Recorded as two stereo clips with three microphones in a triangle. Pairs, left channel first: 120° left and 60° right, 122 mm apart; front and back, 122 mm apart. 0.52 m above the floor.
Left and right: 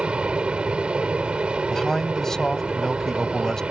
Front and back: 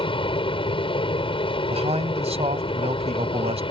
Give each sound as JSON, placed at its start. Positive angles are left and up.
{"t": 0.0, "sound": "an aircraft", "azimuth_deg": 20}
{"t": 1.7, "sound": "a man speaking", "azimuth_deg": -155}